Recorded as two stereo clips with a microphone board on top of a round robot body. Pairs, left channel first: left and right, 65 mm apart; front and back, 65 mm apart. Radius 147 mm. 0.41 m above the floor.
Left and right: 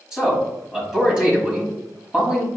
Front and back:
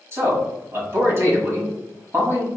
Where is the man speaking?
160° right, 1.7 m.